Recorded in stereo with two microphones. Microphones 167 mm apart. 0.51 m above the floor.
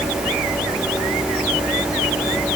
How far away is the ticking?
No ticking in this recording.